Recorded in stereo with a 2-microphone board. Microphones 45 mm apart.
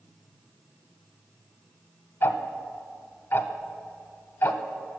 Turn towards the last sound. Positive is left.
turn(degrees=55)  # may be behind; listen again after turning